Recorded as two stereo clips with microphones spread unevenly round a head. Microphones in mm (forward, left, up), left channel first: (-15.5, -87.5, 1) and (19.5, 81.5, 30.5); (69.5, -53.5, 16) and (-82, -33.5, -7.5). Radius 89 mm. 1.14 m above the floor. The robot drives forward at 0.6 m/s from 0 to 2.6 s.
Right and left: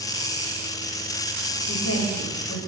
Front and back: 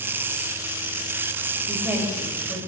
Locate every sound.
1.7 s a woman speaking: 105° right, 5.5 m; by 2.6 s 110° right, 6 m